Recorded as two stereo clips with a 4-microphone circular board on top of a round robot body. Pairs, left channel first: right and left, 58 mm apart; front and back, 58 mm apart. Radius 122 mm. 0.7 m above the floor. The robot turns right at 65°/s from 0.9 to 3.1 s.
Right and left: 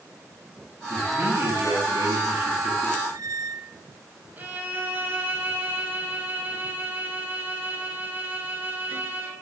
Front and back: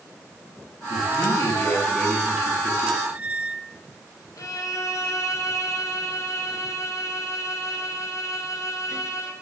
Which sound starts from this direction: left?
A squeak, at 3.0 s.